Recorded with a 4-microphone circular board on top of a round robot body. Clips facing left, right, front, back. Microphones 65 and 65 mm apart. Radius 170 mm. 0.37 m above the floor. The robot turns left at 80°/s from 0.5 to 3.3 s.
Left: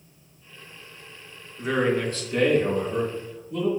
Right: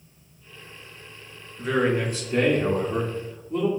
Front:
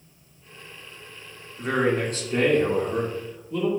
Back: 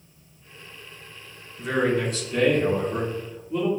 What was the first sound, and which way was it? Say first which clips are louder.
A man speaking: even, even; 20° left.